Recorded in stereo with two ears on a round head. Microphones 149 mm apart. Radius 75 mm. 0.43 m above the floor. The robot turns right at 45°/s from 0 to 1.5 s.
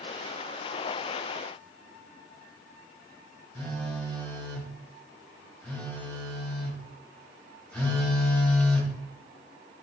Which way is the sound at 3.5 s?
5° left (ahead or behind).